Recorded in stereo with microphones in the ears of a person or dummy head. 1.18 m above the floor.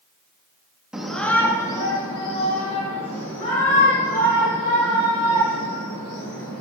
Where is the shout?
5° right (ahead or behind), 1.3 m; by 6.6 s 50° left (ahead or behind), 6 m.